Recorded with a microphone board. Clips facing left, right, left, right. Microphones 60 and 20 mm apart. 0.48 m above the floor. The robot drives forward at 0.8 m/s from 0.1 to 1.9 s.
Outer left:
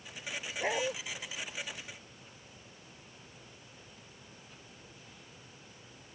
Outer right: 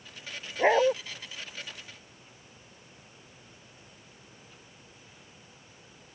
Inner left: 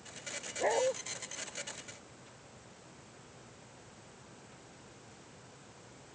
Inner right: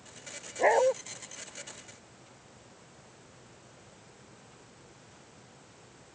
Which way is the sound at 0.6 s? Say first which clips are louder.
Outer right 11 dB, inner right 7 dB; 40° right (ahead or behind).